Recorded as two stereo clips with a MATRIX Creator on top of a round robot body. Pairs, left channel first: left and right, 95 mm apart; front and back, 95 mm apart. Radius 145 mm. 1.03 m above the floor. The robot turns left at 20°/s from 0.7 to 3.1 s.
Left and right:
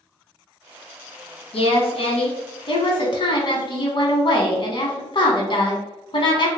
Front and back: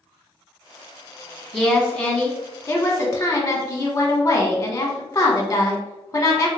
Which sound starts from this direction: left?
A woman speaking, at 1.5 s.